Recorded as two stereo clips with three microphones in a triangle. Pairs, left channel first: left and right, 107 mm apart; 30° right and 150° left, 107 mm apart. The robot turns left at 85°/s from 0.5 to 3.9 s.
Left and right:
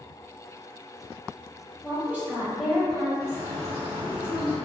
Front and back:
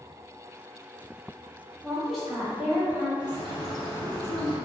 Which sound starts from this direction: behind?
A bird, at 3.2 s.